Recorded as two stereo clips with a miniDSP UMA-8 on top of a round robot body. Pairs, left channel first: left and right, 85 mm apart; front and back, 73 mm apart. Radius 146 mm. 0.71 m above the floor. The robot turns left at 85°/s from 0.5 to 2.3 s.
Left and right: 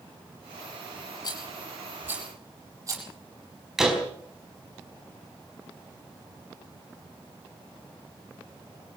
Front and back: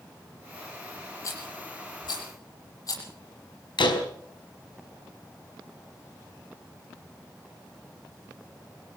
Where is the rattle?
55° left, 8.5 m; by 3.0 s 35° right, 8.5 m.